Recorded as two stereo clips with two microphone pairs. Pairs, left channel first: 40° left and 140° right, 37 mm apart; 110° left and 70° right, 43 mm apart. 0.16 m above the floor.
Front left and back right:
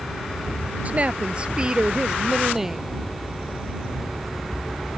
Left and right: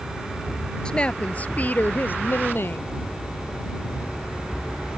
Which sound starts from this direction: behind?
A woman speaking, at 0.8 s.